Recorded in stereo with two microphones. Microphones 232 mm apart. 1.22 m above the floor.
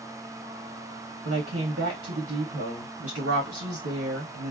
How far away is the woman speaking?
About 1.2 m.